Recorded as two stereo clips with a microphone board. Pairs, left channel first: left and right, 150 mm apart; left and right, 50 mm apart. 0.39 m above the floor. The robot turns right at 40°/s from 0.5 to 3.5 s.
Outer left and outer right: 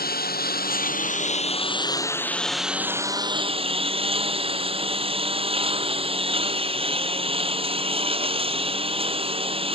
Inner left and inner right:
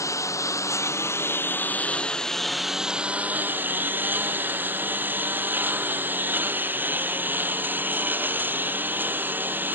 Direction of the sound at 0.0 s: 95° left.